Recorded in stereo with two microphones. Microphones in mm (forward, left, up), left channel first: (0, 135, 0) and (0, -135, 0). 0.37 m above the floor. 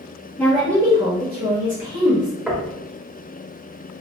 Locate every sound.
0.4 s a woman speaking: 10° left (ahead or behind), 0.9 m; by 2.3 s 55° right (ahead or behind), 1.6 m
2.5 s knocking: 5° right (ahead or behind), 0.5 m